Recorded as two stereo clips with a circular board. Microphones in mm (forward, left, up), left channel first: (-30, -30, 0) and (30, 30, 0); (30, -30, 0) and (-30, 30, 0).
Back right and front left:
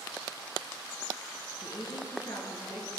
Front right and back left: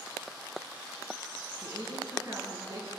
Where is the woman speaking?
170° right, 7 m.